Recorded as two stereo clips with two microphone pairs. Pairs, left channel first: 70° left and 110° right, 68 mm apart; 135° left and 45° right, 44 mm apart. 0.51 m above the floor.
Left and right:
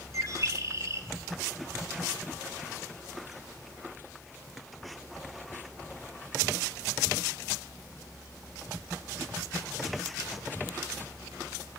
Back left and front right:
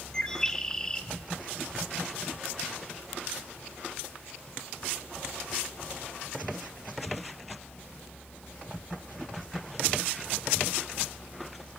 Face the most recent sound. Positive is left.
turn(degrees=-150)